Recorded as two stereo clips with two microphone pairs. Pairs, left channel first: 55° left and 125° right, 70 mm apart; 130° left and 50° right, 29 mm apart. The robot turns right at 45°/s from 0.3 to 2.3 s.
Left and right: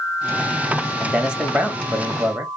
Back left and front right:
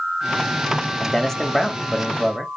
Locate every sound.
1.0 s a man speaking: 175° left, 0.9 m; by 2.5 s 125° right, 0.9 m